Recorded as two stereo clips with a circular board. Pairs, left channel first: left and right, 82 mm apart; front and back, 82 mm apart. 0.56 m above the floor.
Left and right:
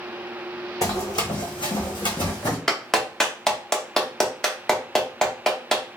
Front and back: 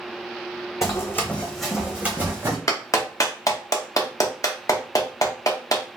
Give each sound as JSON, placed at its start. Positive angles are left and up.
{"t": 0.8, "sound": "running footsteps", "azimuth_deg": 50, "distance_m": 1.5}
{"t": 2.7, "sound": "a clap", "azimuth_deg": 10, "distance_m": 0.6}